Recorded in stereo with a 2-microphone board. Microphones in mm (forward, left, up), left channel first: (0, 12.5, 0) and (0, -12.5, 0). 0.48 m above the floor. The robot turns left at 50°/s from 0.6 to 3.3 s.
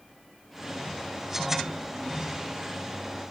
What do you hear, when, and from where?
Only background noise.